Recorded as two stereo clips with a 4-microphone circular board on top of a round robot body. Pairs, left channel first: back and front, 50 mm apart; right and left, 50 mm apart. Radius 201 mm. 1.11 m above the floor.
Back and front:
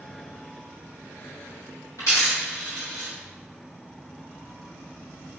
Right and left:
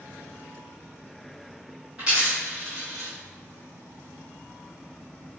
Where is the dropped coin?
165° left, 0.5 m.